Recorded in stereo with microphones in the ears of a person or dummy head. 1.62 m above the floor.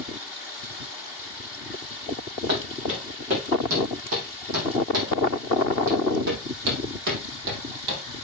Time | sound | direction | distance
2.5 | footsteps | 50° right (ahead or behind) | 5.5 m